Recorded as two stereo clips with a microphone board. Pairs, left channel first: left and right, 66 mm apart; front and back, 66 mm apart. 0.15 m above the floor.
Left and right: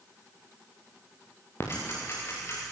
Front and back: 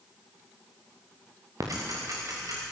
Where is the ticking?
140° left, 6 m.